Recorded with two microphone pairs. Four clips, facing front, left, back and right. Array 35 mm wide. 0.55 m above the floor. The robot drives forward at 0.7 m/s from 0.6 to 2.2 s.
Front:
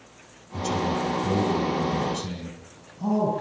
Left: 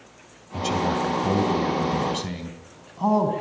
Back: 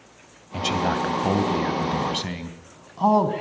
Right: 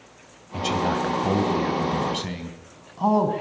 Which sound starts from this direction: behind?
A man speaking, at 0.5 s.